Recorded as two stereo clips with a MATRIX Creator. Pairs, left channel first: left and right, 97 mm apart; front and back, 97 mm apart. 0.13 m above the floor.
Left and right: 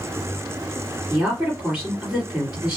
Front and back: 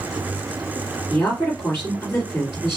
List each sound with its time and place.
1.1 s a woman speaking: 25° right, 1.8 m